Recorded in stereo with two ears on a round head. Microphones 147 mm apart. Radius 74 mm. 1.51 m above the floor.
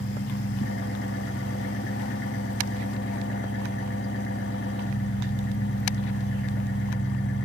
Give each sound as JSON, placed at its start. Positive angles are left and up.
{"t": 0.0, "sound": "an engine running", "side_deg": 75, "distance_m": 1.9}